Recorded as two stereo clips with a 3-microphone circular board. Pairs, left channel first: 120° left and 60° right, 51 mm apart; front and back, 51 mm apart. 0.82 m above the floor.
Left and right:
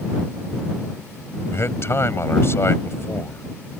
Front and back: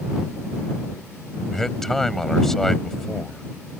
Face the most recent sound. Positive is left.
turn(degrees=85)